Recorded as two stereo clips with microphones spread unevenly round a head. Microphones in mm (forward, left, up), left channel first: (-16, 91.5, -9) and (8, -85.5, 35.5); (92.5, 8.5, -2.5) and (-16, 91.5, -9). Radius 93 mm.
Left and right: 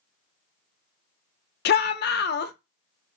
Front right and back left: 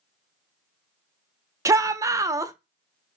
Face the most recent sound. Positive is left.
turn(degrees=90)